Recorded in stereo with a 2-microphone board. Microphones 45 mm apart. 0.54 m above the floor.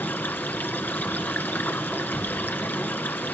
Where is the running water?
45° left (ahead or behind), 1.7 m.